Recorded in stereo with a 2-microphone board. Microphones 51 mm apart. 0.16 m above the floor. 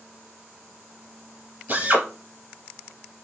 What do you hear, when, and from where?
1.7 s a drill: 40° right (ahead or behind), 2 m